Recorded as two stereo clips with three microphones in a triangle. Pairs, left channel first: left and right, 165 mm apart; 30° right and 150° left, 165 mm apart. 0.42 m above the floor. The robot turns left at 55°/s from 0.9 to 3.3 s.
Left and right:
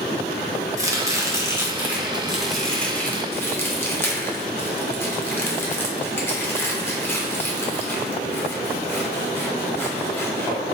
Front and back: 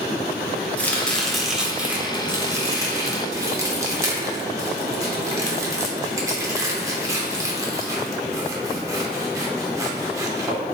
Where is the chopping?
95° right, 0.6 m; by 10.6 s 135° left, 0.6 m.